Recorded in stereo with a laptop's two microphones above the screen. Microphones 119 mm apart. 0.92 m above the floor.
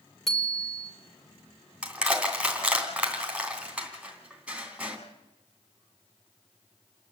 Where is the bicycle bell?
Centre (ahead or behind), 2.5 m.